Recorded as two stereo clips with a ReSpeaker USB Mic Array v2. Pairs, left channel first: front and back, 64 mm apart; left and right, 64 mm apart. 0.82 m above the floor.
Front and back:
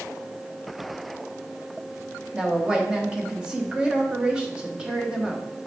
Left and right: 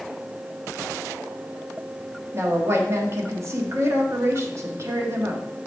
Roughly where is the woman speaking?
Right.